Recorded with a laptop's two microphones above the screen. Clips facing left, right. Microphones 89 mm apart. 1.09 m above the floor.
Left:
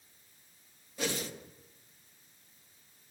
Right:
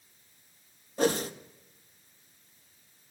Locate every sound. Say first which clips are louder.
1.0 s a whoosh: right 9 dB; 40° right (ahead or behind), 1.6 m